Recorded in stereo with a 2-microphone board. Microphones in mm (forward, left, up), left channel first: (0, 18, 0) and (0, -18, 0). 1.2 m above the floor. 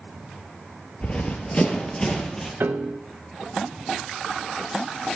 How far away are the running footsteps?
About 1.4 m.